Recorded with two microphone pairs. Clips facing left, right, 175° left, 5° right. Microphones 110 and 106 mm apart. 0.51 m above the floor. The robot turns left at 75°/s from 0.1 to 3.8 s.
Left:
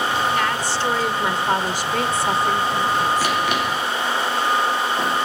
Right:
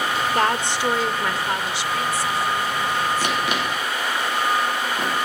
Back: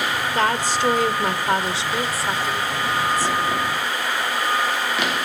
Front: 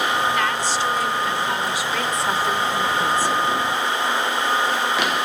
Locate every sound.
0.3 s a woman speaking: 135° right, 1.4 m; by 3.5 s 10° right, 1.4 m